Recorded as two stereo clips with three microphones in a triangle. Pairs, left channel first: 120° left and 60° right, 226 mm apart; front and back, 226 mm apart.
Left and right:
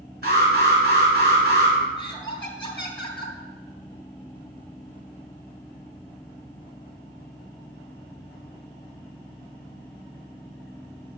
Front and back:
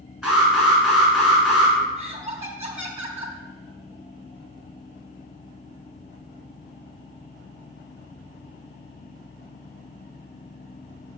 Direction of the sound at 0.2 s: 95° right.